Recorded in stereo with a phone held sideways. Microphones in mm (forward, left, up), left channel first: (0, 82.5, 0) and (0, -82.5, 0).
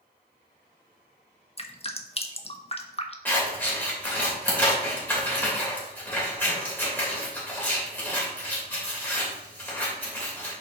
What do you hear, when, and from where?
1.6 s dripping: 35° left (ahead or behind), 0.7 m
3.2 s scissors: 10° left (ahead or behind), 2.5 m